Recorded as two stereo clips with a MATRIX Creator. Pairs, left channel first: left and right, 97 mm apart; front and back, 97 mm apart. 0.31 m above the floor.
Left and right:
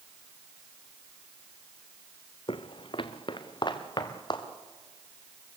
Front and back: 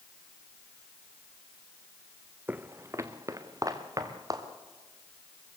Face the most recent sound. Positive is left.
turn(degrees=130)